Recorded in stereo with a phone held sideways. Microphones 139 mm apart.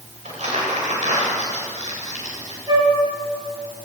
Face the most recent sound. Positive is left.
turn(degrees=-30)  # may be behind; listen again after turning